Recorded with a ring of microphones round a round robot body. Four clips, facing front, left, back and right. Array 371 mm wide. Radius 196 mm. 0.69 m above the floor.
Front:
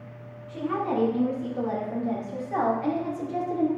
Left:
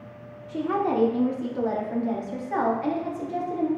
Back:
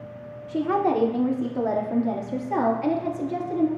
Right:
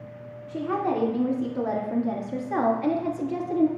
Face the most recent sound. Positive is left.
turn(degrees=-115)